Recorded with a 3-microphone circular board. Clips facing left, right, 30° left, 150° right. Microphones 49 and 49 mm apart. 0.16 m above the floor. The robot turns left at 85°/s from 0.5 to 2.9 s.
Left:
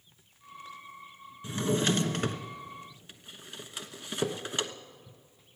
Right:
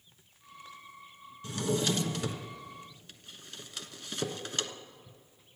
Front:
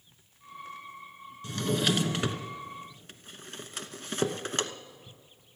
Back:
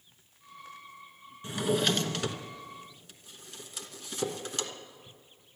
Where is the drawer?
150° left, 0.9 m; by 4.7 s 25° left, 0.9 m.